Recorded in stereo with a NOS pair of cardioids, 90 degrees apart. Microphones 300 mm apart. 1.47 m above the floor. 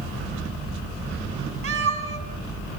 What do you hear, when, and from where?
1.6 s a cat meowing: 50° right, 5 m